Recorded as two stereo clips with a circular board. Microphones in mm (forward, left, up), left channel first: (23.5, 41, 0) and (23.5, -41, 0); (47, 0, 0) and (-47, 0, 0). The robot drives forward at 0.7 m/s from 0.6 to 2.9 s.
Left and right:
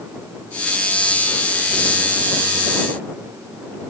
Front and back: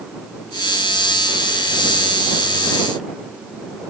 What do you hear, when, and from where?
Only background noise.